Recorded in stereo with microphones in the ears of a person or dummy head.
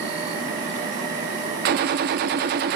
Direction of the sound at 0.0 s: 40° right (ahead or behind).